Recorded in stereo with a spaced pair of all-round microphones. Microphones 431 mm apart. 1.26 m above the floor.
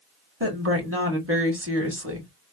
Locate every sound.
0.4 s a woman speaking: 30° right (ahead or behind), 1.5 m